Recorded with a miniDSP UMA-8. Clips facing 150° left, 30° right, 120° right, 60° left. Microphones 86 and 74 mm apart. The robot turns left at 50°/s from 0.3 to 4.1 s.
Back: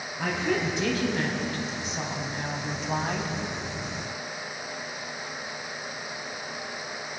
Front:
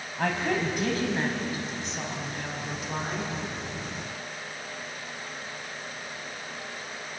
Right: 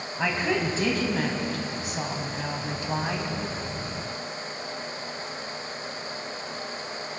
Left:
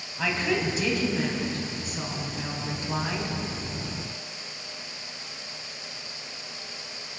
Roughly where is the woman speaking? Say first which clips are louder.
Even, right 1 dB; ahead right.